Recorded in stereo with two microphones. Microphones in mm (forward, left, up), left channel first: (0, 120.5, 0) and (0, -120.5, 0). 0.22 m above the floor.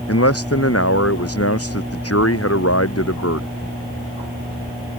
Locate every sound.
0.1 s a man speaking: 75° left (ahead or behind)